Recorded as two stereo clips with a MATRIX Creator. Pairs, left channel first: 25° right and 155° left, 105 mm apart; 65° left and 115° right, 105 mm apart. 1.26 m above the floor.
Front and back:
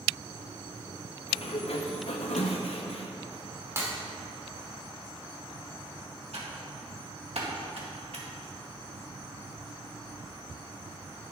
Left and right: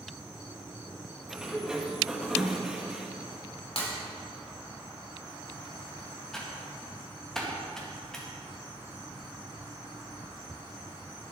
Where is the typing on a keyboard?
150° left, 1.9 m.